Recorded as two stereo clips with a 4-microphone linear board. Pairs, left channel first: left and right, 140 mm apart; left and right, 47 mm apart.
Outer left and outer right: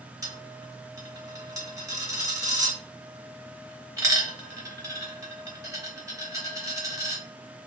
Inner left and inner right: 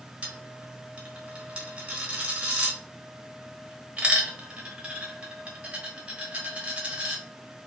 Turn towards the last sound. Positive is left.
turn(degrees=-25)  # may be behind; listen again after turning